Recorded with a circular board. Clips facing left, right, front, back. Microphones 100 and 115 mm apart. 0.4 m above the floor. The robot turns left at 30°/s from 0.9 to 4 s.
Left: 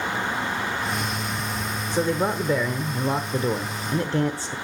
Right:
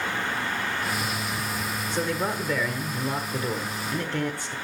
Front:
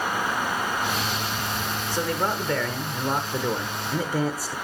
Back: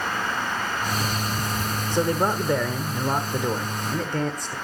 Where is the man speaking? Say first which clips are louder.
Left 5 dB, back 4 dB; 140° left, 0.9 m; by 4.5 s 75° left, 0.9 m.